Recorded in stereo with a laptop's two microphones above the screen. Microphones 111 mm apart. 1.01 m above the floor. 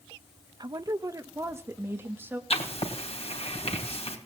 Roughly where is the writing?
Left.